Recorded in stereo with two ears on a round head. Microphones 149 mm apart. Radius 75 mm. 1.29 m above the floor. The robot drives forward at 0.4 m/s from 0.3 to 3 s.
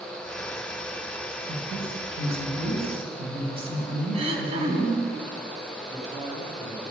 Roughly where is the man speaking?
Right.